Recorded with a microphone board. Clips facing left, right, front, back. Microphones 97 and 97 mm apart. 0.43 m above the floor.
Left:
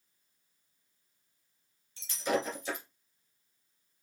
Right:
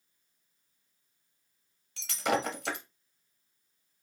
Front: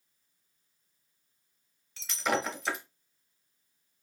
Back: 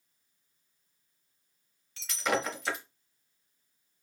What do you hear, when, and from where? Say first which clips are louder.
2.0 s breaking glass: right 2 dB, even; 90° right, 1.4 m